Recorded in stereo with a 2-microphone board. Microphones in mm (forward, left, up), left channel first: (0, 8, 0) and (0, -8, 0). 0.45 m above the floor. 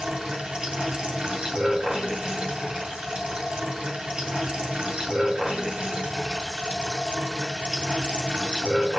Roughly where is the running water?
Right.